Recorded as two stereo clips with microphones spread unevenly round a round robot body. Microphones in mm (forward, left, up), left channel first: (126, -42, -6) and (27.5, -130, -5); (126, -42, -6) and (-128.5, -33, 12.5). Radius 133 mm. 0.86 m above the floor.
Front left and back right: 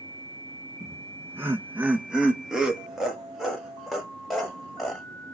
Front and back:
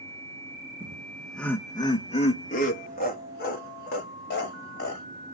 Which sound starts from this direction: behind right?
Laughter, at 0.8 s.